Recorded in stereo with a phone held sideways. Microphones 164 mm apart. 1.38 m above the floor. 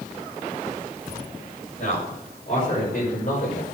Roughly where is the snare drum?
No snare drum in this recording.